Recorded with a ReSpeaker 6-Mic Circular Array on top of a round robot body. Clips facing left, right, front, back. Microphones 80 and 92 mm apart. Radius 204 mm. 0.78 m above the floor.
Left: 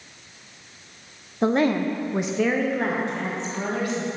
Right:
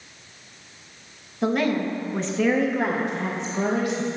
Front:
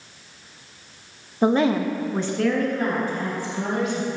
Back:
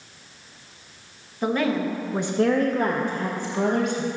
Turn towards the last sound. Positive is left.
turn(degrees=-160)